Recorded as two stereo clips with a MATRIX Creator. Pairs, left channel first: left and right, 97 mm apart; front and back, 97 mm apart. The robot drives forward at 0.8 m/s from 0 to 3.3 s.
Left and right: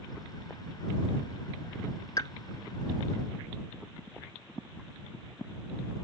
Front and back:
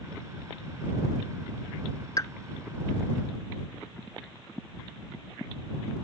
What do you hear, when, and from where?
2.2 s a pop: 45° left; by 2.3 s 55° left